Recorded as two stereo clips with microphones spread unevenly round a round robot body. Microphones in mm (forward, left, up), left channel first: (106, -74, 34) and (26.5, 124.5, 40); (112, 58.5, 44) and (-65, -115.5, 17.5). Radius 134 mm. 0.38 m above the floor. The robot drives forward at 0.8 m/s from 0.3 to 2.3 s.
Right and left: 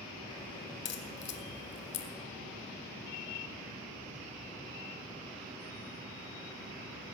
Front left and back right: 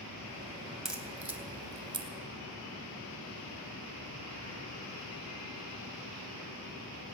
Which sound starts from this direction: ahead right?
A crack, at 0.8 s.